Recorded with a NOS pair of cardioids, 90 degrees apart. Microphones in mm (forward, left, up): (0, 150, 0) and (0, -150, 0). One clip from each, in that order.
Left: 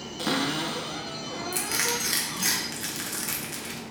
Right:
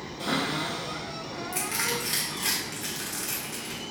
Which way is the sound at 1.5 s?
25° left.